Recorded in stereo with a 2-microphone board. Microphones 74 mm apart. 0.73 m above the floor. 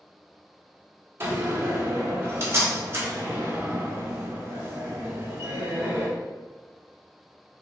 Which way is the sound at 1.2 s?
35° right (ahead or behind).